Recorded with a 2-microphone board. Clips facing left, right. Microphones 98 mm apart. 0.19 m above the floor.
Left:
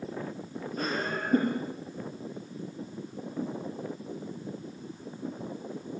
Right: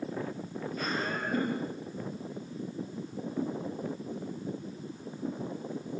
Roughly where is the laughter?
Left.